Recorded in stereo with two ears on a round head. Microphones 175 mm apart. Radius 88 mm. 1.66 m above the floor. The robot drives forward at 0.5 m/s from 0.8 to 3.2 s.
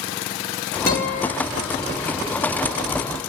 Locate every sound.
0.9 s a guitar: 15° left (ahead or behind), 2.5 m